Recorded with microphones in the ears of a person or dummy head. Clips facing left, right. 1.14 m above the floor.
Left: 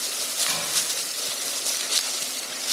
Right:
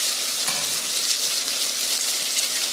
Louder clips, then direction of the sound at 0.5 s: Right 1 dB; 60° right (ahead or behind).